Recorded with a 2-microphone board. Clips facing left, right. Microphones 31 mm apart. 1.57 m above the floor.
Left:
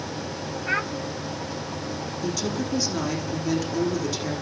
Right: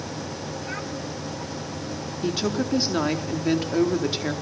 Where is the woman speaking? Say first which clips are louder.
Right 4 dB; 35° right (ahead or behind), 4.5 m.